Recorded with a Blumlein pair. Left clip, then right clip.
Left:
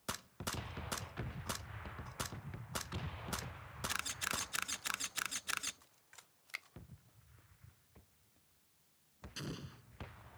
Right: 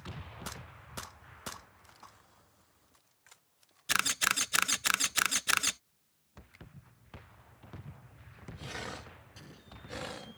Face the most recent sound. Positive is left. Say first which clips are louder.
# left 5 dB
turn(degrees=65)